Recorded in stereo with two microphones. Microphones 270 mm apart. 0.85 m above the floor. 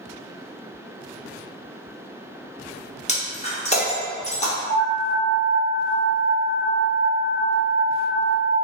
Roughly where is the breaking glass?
Left.